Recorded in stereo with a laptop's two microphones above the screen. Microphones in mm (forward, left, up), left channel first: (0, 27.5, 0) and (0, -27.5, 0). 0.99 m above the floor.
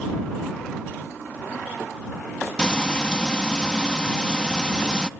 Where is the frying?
15° left (ahead or behind).